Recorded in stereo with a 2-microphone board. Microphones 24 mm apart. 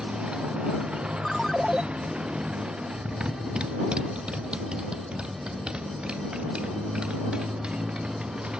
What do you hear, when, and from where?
0.0 s a motorcycle: 45° right (ahead or behind)
1.2 s a ringtone: 10° left (ahead or behind)